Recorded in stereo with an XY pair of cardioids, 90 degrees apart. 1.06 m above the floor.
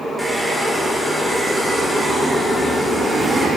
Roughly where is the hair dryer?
Ahead.